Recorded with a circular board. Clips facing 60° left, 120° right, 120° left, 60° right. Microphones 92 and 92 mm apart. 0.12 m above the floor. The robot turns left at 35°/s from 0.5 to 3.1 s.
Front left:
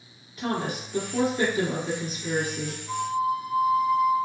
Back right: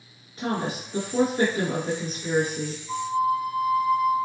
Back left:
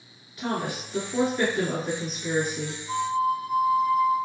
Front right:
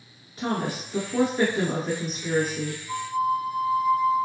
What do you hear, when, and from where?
0.4 s a woman speaking: 95° right, 1.3 m; by 2.8 s 170° right, 1.3 m
2.9 s a flute: 95° left, 1.6 m; by 4.1 s 90° left, 1.6 m